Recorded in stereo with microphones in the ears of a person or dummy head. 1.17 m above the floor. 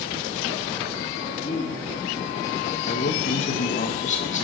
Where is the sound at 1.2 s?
30° left (ahead or behind), 2.5 m; by 3.9 s 10° left (ahead or behind), 5 m.